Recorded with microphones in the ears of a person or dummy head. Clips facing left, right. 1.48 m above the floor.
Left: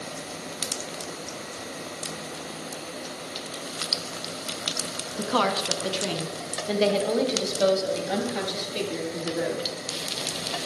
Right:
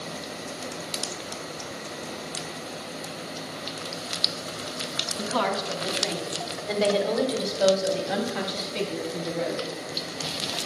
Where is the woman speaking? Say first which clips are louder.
Left 2 dB; 70° left (ahead or behind), 1.1 m; by 9.7 s 20° left (ahead or behind), 3 m.